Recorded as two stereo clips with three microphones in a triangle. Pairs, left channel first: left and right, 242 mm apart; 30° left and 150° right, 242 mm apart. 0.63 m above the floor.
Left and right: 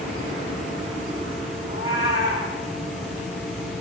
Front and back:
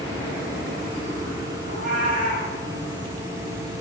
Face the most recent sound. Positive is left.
turn(degrees=-140)